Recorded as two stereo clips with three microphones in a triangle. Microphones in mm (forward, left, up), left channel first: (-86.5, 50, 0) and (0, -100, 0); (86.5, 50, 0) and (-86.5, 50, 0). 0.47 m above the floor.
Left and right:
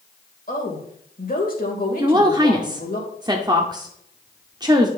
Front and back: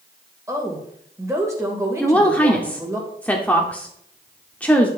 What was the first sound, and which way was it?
A woman speaking, 110° left.